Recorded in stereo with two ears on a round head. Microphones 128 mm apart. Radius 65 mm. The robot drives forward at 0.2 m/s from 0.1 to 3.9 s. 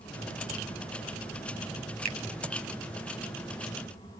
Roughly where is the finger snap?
Right.